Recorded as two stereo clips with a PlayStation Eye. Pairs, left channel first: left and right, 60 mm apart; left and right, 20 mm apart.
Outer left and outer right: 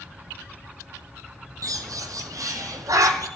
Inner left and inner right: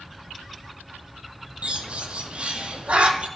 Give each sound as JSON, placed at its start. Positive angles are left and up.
{"t": 1.6, "sound": "a bird", "side_deg": -70, "distance_m": 1.5}